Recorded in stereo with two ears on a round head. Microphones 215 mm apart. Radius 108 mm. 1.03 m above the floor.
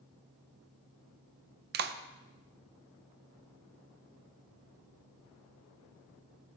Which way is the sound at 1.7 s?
45° right (ahead or behind).